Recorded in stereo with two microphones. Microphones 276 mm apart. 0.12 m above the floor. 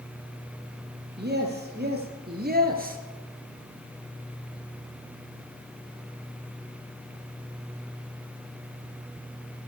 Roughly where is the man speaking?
Right.